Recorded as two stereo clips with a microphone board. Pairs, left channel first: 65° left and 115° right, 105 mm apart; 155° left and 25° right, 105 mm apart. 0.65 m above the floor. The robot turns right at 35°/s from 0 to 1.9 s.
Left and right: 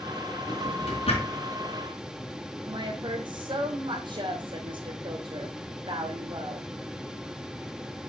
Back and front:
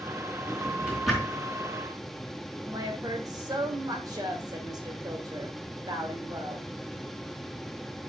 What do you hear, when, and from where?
0.5 s a drawer: 45° left, 4 m; by 1.4 s 80° left, 4 m
2.7 s a woman speaking: 75° right, 2 m